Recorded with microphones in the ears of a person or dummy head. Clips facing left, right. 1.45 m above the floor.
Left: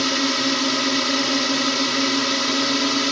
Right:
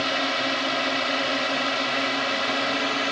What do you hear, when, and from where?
0.0 s a drone: 65° left (ahead or behind); by 3.1 s 60° left (ahead or behind)